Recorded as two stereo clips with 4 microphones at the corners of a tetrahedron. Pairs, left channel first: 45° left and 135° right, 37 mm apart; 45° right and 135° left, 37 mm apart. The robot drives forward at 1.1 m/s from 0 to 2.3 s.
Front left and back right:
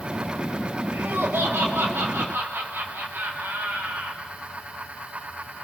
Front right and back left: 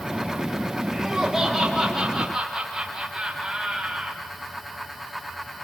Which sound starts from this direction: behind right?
Laughter, at 0.9 s.